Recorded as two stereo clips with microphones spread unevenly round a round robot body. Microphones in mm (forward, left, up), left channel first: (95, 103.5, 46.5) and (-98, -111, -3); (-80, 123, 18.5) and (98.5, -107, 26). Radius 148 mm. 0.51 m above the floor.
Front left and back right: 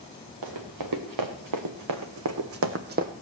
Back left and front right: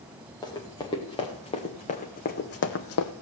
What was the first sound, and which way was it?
Running footsteps, 155° right.